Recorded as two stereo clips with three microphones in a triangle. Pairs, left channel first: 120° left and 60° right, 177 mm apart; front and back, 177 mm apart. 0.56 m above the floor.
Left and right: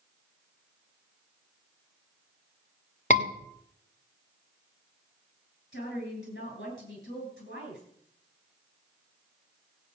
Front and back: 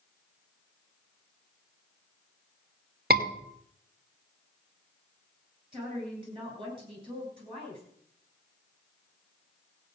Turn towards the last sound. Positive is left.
turn(degrees=120)